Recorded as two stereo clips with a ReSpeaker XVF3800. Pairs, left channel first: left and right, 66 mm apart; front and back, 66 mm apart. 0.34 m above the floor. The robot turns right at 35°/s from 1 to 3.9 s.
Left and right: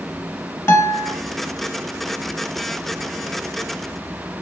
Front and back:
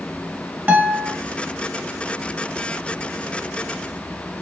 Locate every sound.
0.7 s a guitar: 125° left, 0.7 m; by 1.1 s 130° left, 0.7 m